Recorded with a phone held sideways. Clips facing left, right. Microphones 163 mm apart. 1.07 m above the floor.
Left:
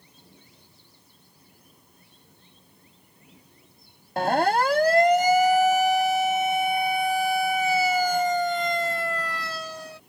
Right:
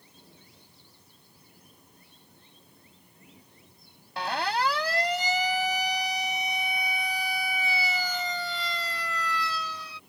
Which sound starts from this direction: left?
A siren, at 4.2 s.